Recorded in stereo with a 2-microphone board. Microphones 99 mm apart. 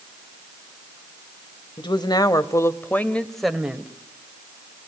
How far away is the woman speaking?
About 1.5 m.